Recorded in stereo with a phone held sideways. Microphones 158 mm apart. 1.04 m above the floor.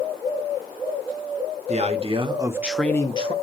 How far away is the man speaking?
About 1.6 m.